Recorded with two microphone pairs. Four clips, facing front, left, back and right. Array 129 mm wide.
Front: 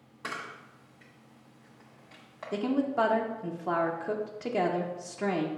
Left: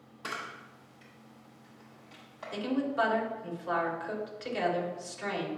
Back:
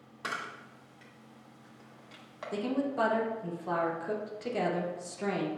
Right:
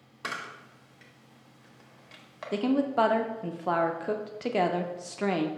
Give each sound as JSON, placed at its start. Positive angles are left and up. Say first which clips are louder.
{"t": 0.2, "sound": "a camera shutter", "louder": "right 2 dB, back 1 dB", "azimuth_deg": -115, "distance_m": 1.0}
{"t": 2.5, "sound": "a woman speaking", "louder": "right 5 dB, front 3 dB", "azimuth_deg": -65, "distance_m": 0.7}